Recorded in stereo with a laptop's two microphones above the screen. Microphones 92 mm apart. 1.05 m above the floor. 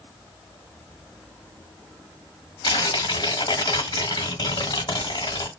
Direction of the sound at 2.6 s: 50° left (ahead or behind).